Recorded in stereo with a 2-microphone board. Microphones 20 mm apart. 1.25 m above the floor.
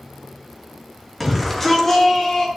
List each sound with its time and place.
1.2 s a shout: 5° left (ahead or behind), 2.5 m; by 2.5 s 30° left (ahead or behind), 3.5 m